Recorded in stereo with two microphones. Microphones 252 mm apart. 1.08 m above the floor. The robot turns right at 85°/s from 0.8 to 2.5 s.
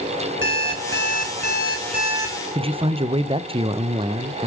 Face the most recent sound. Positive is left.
turn(degrees=-20)  # may be behind; listen again after turning